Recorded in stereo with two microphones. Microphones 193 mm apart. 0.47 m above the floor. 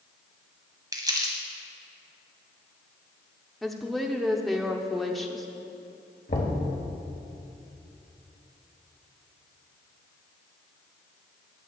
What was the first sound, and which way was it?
Crumpling, 20° right (ahead or behind).